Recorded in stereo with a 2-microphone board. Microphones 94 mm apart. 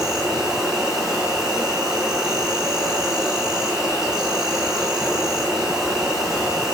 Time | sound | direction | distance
0.0 | an insect | 5° right (ahead or behind) | 1.4 m